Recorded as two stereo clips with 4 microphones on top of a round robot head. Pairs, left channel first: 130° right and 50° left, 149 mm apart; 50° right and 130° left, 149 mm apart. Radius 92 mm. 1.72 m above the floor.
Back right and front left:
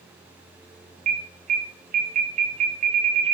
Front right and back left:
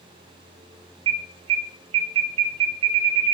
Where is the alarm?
80° left, 0.5 m.